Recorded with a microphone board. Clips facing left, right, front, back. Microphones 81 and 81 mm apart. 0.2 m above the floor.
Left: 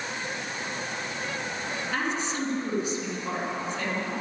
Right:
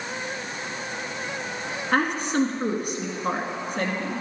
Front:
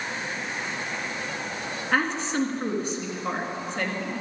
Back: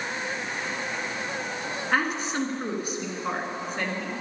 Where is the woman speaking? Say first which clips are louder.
Right 8 dB, front 1 dB; 95° right, 3 m.